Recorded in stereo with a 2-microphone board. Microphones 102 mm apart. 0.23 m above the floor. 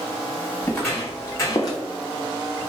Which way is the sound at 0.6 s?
10° left (ahead or behind).